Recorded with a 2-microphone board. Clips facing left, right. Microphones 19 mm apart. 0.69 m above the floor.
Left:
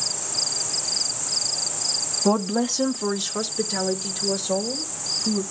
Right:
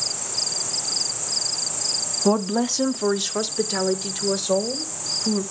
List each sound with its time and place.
2.2 s a woman speaking: centre (ahead or behind), 0.9 m; by 5.4 s 20° right (ahead or behind), 3 m